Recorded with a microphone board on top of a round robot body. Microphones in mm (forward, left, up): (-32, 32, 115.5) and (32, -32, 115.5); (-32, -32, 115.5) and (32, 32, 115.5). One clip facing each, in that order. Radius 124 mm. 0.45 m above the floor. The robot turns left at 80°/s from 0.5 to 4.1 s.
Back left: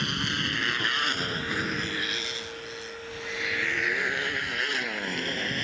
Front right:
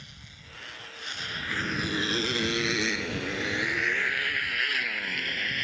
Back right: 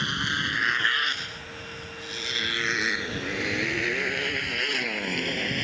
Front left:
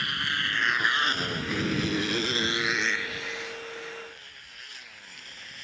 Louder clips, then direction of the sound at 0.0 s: Back left 21 dB, back right 2 dB; 160° left.